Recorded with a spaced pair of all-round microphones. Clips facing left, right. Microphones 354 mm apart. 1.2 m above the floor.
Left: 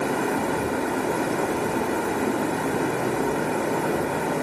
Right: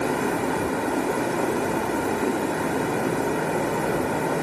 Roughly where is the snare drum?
I don't hear a snare drum.